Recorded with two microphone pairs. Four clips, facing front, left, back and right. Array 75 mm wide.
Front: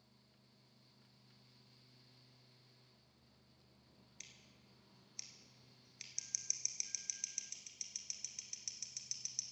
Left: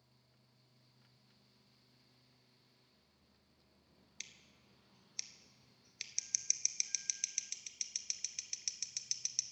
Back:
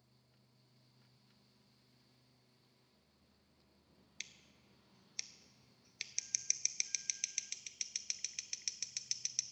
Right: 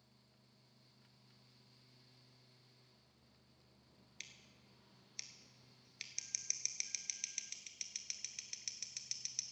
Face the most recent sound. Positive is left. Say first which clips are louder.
# left 1 dB, back 9 dB
turn(degrees=-165)